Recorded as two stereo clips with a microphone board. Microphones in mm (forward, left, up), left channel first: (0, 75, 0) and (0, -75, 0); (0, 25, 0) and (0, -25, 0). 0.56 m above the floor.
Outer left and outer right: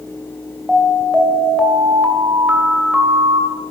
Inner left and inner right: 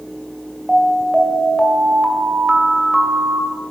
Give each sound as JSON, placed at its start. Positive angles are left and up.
{"t": 0.7, "sound": "an alarm", "side_deg": -5, "distance_m": 2.5}